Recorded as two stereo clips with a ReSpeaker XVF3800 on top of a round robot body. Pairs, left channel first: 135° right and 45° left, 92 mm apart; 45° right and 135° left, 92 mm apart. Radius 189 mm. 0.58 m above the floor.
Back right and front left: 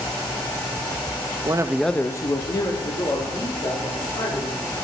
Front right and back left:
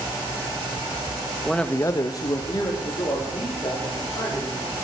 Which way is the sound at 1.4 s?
45° left.